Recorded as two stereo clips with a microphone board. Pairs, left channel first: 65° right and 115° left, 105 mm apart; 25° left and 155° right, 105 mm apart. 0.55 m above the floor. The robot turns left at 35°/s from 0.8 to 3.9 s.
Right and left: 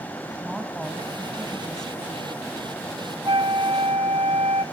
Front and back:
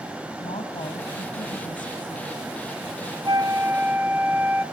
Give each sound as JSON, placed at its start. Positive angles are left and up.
{"t": 0.4, "sound": "a woman speaking", "azimuth_deg": 20, "distance_m": 3.0}
{"t": 3.2, "sound": "a flute", "azimuth_deg": 155, "distance_m": 0.7}